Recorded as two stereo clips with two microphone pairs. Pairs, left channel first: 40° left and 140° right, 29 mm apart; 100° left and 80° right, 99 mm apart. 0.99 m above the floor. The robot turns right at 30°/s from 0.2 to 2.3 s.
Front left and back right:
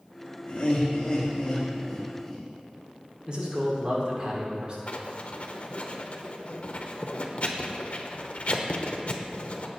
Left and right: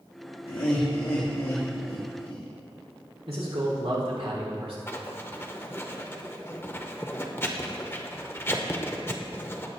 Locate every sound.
0.5 s laughter: 75° left, 1.4 m; by 2.5 s 130° left, 1.4 m
3.3 s a man speaking: 80° right, 3 m
4.9 s writing: 40° left, 0.8 m